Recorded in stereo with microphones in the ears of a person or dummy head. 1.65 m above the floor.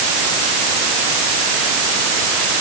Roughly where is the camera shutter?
I don't hear a camera shutter.